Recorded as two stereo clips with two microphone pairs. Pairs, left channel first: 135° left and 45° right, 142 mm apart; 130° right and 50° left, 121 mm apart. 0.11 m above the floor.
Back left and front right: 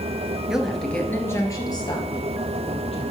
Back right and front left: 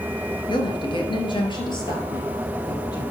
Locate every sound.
0.5 s a woman speaking: 125° right, 1.6 m; by 3.1 s 175° left, 3 m